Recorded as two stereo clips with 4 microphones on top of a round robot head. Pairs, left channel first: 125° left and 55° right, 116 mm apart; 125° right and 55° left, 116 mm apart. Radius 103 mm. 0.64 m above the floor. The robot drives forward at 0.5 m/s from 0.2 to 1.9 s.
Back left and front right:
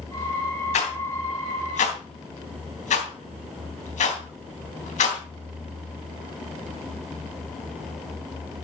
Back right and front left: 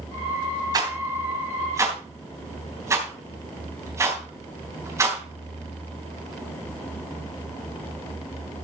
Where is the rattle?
110° left, 3 m; by 5.2 s 120° left, 3.5 m.